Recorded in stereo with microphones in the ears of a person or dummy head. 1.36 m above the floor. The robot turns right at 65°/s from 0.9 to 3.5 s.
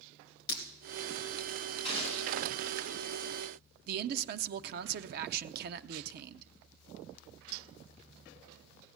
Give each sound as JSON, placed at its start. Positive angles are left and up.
{"t": 0.5, "sound": "breaking glass", "side_deg": 55, "distance_m": 2.5}
{"t": 1.8, "sound": "a gunshot", "azimuth_deg": 145, "distance_m": 7.5}
{"t": 3.9, "sound": "a man speaking", "side_deg": -55, "distance_m": 0.6}